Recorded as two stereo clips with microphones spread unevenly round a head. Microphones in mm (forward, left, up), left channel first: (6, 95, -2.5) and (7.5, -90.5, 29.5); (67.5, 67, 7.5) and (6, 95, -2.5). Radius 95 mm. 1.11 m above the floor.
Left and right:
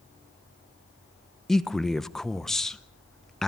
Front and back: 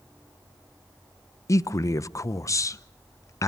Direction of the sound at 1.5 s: 10° left.